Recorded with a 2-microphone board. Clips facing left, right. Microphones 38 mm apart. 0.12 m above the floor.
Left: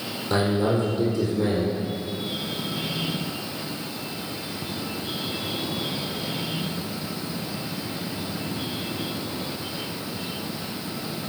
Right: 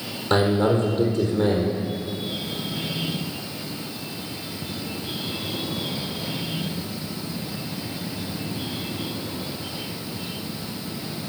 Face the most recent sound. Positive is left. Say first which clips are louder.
# right 3 dB
turn(degrees=-60)  # may be behind; listen again after turning